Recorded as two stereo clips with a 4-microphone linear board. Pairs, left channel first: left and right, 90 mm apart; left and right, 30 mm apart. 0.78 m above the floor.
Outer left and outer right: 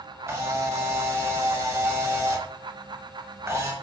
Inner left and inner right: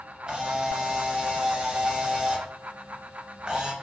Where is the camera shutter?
30° right (ahead or behind), 0.6 m.